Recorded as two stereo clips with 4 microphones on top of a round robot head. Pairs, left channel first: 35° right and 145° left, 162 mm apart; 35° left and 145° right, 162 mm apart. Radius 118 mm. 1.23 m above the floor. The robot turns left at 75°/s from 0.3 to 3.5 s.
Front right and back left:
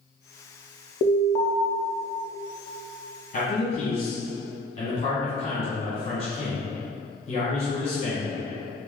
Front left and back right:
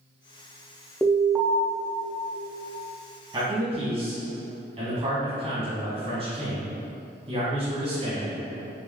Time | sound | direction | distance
1.0 | an alarm | 50° right | 0.7 m
3.3 | a man speaking | 80° right | 1.5 m